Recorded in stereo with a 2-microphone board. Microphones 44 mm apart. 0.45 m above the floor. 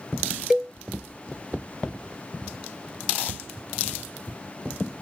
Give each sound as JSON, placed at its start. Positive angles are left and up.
{"t": 0.5, "sound": "a cowbell", "side_deg": -10}